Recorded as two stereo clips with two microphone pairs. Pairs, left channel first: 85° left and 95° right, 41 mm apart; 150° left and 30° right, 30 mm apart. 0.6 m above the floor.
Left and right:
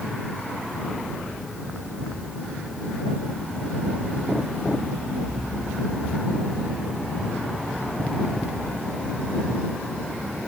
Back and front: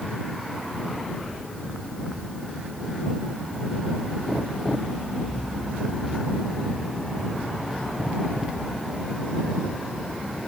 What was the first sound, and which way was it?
Only background noise.